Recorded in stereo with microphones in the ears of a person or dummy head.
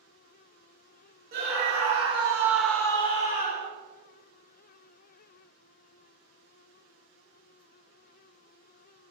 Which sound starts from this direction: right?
A scream, at 1.3 s.